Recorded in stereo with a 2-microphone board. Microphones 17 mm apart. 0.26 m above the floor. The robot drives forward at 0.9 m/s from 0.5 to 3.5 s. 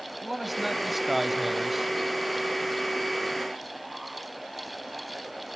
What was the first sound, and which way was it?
A man speaking, 5° right (ahead or behind).